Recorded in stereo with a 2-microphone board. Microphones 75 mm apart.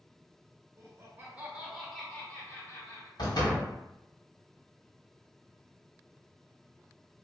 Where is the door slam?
70° left (ahead or behind), 1.5 m.